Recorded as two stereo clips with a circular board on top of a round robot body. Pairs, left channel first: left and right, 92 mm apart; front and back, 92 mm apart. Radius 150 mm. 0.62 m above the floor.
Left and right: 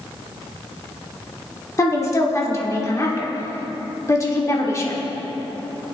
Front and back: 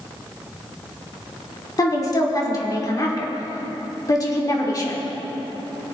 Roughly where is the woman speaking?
Ahead left.